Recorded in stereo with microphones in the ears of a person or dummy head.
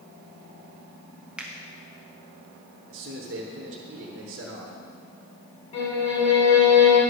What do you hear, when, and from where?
1.4 s a finger snap: 10° right (ahead or behind), 1.0 m
2.9 s a man speaking: 50° right (ahead or behind), 1.0 m
5.7 s a violin: 35° left (ahead or behind), 3.5 m